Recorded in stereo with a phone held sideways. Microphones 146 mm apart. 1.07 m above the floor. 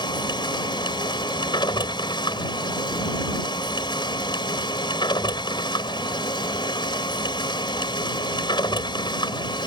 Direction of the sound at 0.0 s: 30° left (ahead or behind).